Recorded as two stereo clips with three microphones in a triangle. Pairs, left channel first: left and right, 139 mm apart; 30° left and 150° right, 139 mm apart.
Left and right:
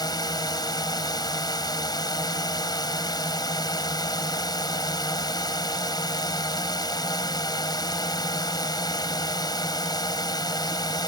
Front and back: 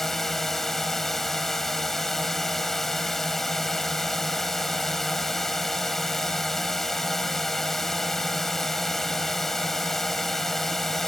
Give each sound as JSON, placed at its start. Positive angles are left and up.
{"t": 0.0, "sound": "a drone", "azimuth_deg": 115}